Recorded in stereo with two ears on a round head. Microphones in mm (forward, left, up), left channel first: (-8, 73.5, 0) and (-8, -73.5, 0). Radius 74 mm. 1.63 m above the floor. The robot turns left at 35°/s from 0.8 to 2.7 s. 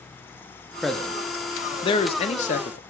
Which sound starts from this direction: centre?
A man speaking, at 0.8 s.